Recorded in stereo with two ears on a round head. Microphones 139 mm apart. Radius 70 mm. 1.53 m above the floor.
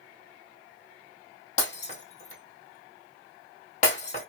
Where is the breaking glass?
50° left (ahead or behind), 2.5 m.